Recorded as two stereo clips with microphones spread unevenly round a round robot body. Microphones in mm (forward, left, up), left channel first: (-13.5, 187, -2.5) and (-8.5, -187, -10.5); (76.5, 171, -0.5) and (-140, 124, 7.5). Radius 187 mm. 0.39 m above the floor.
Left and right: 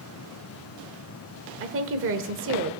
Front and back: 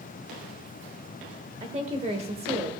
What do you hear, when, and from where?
1.6 s a woman speaking: 120° right, 1.0 m